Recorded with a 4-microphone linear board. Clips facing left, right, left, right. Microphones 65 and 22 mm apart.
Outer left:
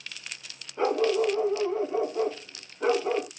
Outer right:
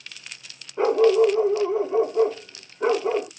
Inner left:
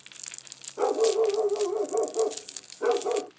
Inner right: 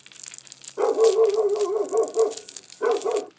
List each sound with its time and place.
0.8 s a dog barking: 10° right (ahead or behind), 0.8 m